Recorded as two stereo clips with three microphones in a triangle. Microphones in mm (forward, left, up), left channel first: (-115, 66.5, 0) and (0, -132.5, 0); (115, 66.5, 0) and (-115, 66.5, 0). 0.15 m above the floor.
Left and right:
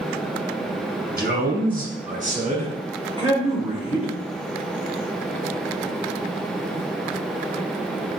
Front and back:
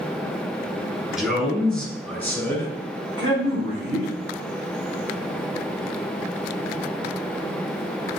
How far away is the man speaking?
About 2 m.